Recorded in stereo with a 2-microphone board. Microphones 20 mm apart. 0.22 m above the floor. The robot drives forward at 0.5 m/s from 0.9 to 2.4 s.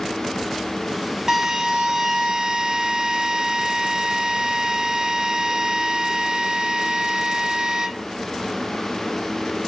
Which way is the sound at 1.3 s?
20° right (ahead or behind).